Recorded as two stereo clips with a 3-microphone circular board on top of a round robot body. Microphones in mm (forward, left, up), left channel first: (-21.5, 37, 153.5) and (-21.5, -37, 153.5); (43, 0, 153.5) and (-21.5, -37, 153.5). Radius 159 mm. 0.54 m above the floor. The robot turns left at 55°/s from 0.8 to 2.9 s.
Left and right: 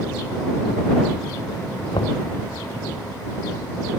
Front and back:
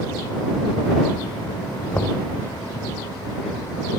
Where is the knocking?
100° left; by 2.2 s 90° left.